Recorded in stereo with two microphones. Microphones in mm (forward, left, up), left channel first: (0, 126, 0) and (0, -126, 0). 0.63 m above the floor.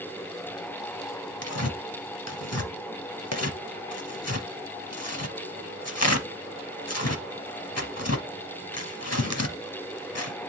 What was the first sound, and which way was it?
Tearing paper, 75° left (ahead or behind).